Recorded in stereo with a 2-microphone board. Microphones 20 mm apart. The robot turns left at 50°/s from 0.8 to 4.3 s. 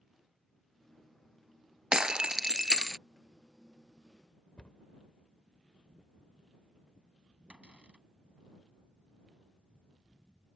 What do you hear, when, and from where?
1.9 s breaking glass: 80° right; by 3.0 s 135° right
4.6 s a cupboard door: 70° left (ahead or behind)
7.5 s a cupboard door: 75° right (ahead or behind)